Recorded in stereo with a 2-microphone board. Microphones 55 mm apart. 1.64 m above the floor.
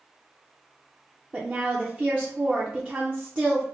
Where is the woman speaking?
25° right (ahead or behind), 0.6 m.